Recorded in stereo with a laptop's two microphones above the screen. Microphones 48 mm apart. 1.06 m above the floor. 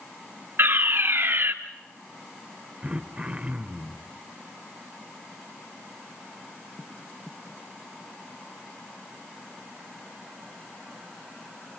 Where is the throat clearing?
25° right (ahead or behind), 0.8 m.